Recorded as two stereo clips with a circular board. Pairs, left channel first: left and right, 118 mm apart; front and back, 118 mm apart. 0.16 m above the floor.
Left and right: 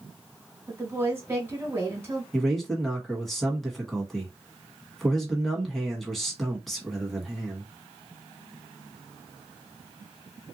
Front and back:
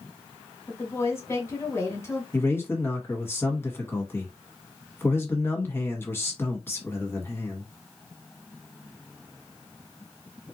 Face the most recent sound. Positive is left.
turn(degrees=0)